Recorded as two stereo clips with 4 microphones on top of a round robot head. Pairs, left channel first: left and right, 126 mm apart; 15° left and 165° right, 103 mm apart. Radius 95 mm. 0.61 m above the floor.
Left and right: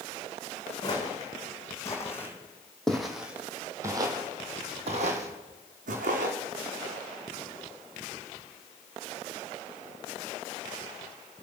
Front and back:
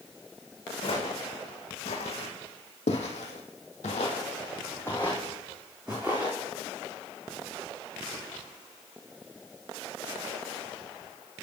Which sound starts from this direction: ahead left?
Footsteps, at 0.8 s.